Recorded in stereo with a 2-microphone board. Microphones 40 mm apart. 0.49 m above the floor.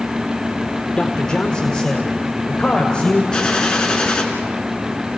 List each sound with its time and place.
1.0 s a man speaking: 20° left (ahead or behind), 1.5 m; by 3.2 s 25° left (ahead or behind), 2.5 m
3.3 s a gunshot: 20° left (ahead or behind), 3.5 m